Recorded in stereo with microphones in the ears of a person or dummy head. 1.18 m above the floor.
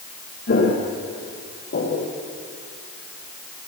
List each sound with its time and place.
0.5 s footsteps: 55° left (ahead or behind), 7 m; by 2.1 s 45° left (ahead or behind), 5.5 m